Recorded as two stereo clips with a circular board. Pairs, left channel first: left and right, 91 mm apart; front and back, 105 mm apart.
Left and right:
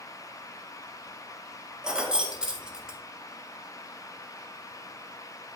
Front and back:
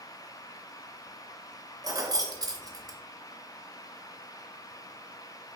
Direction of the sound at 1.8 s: 165° right.